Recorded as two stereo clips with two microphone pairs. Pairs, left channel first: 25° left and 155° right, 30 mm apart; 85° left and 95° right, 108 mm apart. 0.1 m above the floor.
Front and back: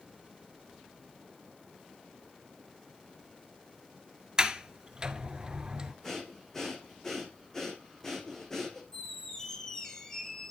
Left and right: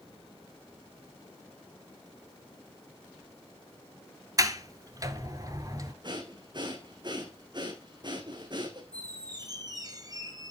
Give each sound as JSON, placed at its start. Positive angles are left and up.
{"t": 4.4, "sound": "a sliding door", "azimuth_deg": -110, "distance_m": 1.2}
{"t": 6.0, "sound": "breathing", "azimuth_deg": -50, "distance_m": 2.5}
{"t": 8.9, "sound": "a squeak", "azimuth_deg": -45, "distance_m": 1.4}